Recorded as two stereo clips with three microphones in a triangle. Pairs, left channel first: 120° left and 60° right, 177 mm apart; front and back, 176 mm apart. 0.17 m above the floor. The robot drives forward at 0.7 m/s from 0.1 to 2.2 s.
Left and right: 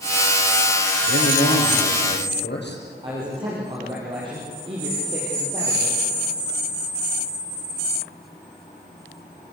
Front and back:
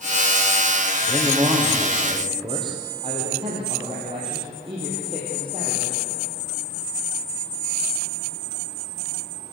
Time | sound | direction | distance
1.0 | a man speaking | 110° left | 5.5 m
3.0 | a man speaking | 120° right | 6 m